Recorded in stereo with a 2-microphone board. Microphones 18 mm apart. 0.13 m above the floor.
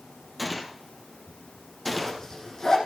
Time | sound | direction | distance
0.4 | a gunshot | centre (ahead or behind) | 1.9 m
1.9 | a zipper | 35° left (ahead or behind) | 5.5 m